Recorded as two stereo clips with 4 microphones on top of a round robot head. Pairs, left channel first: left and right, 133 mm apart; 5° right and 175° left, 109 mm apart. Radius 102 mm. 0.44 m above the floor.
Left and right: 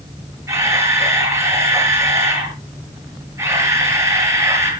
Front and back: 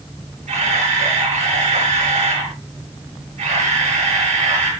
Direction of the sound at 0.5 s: 160° right.